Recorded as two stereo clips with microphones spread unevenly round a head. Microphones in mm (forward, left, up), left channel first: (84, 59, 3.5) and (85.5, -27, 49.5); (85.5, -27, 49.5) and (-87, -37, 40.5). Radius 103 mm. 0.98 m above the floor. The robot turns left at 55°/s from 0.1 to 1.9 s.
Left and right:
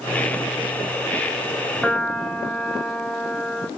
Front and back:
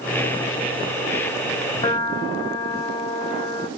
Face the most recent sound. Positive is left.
turn(degrees=55)